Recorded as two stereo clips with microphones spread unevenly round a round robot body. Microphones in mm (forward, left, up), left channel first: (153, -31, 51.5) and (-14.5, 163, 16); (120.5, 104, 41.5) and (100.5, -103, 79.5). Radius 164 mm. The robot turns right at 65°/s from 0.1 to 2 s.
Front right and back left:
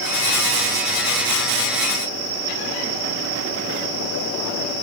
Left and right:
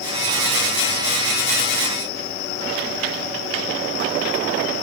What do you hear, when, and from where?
Only background noise.